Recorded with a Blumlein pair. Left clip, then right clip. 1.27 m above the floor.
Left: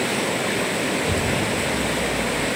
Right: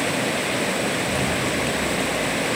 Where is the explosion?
25° left, 3 m.